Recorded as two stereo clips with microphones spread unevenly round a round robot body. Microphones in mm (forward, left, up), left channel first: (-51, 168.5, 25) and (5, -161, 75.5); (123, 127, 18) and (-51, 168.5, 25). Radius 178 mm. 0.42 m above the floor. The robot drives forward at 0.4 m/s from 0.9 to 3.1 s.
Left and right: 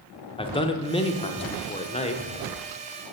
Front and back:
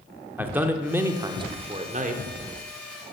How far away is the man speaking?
About 0.8 m.